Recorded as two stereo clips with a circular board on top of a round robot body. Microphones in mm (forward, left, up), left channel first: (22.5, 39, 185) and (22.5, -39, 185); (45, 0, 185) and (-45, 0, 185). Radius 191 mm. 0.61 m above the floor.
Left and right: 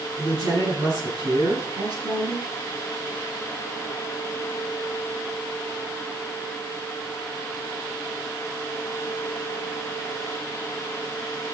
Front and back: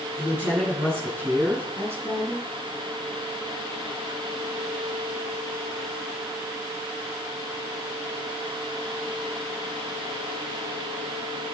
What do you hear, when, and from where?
0.2 s a woman speaking: 105° right, 9.5 m; by 2.5 s 115° right, 11.5 m